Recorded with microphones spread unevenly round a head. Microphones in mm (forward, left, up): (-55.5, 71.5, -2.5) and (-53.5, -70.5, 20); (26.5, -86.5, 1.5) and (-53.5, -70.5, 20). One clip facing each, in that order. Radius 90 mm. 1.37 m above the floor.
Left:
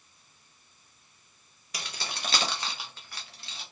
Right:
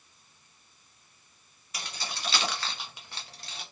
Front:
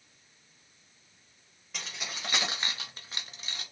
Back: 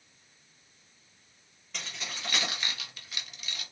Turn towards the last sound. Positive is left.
turn(degrees=-75)